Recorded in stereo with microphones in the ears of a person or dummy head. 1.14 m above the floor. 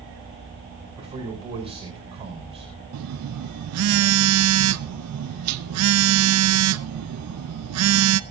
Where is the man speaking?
25° right (ahead or behind), 5.5 m.